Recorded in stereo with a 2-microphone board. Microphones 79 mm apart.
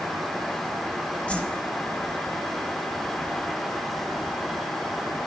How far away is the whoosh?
About 1.3 m.